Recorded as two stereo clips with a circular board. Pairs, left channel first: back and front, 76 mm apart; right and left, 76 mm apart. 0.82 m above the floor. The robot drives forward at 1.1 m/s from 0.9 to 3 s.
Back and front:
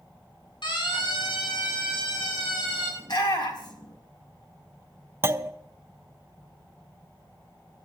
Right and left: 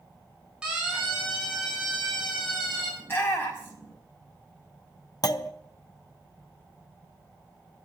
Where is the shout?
155° right, 5 m.